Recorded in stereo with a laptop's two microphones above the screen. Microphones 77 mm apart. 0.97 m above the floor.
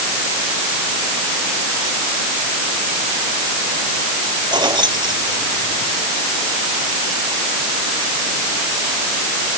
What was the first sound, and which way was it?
Keys jangling, 70° right (ahead or behind).